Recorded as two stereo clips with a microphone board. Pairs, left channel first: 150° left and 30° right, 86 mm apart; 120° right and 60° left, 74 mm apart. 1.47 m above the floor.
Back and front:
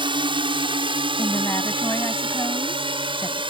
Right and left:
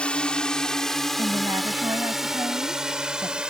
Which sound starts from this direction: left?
A woman speaking, at 1.2 s.